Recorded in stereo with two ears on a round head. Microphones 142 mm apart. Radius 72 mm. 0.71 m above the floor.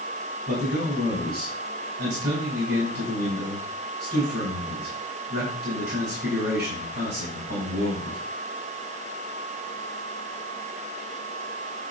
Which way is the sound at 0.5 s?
65° right (ahead or behind).